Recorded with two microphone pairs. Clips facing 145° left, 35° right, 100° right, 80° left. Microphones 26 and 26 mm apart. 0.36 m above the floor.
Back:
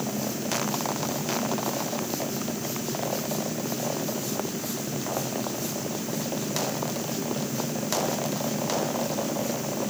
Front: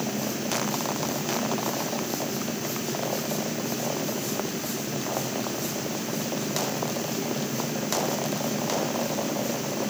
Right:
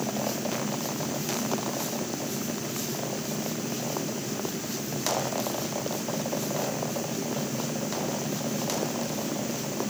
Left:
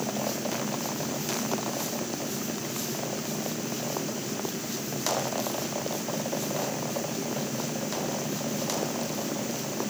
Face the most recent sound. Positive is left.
No sound to turn to.